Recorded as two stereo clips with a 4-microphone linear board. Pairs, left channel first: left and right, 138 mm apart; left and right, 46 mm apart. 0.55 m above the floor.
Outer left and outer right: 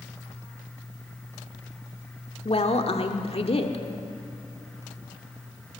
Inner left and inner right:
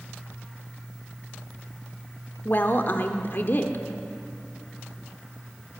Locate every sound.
2.5 s a woman speaking: 45° left (ahead or behind), 1.4 m